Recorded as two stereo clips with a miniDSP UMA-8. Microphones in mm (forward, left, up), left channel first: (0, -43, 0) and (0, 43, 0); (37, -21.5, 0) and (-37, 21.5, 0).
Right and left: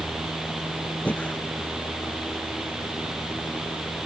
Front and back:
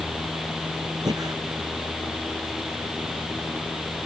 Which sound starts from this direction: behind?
Breathing, at 1.1 s.